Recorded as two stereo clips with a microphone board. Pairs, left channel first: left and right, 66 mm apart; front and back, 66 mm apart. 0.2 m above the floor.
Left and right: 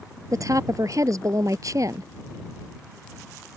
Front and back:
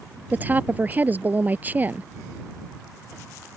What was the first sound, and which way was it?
A woman speaking, 120° right.